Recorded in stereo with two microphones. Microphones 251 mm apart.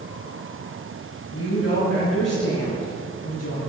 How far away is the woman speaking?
About 3 m.